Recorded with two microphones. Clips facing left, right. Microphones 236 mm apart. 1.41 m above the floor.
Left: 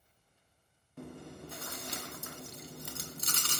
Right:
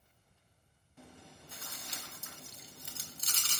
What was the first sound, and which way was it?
Chewing, 60° left (ahead or behind).